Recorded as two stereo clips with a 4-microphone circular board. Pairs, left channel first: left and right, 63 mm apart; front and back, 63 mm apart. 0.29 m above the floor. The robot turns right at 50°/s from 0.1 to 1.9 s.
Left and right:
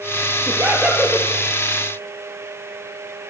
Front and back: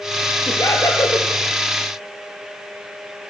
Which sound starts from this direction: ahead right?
Laughter, at 0.5 s.